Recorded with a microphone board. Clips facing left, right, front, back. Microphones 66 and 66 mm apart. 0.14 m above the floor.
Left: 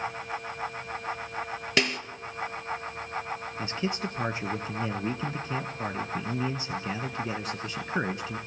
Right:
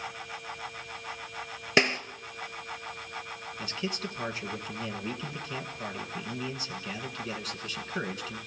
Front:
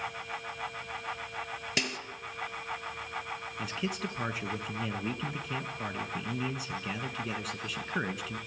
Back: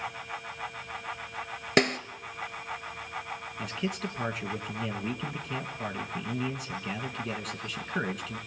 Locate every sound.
1.8 s a snare drum: 150° right, 1.0 m
3.6 s a man speaking: 85° left, 1.1 m